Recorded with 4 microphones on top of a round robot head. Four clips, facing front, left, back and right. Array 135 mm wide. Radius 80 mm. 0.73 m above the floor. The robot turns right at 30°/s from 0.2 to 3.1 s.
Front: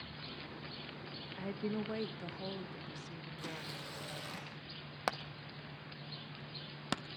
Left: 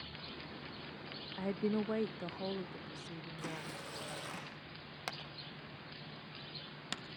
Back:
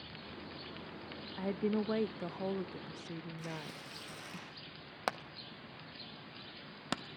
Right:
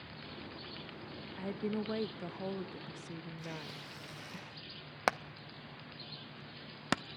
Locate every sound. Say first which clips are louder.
1.4 s a woman speaking: left 2 dB, back 5 dB; 150° left, 0.8 m; by 4.4 s 160° right, 0.8 m
3.4 s tearing paper: left 1 dB, back 1 dB; 65° left, 5.5 m
5.1 s hammering: right 13 dB, even; 90° right, 0.9 m